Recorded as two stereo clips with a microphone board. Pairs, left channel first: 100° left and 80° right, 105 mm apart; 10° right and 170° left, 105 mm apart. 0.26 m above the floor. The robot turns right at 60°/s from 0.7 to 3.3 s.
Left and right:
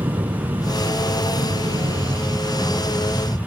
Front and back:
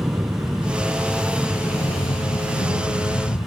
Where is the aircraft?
130° right; by 3.5 s 30° left.